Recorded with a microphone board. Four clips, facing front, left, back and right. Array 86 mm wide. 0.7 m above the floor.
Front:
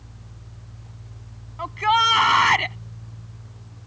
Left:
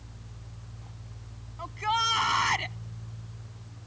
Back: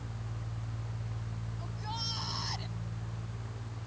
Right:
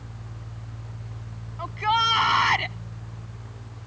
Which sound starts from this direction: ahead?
A shout, at 1.6 s.